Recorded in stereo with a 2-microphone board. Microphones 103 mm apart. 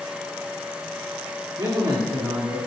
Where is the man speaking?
35° right (ahead or behind), 3 m.